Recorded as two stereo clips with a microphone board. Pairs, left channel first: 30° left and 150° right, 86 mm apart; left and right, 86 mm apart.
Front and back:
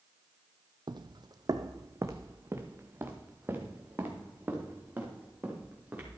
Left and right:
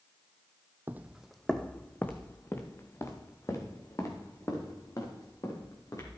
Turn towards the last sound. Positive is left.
turn(degrees=140)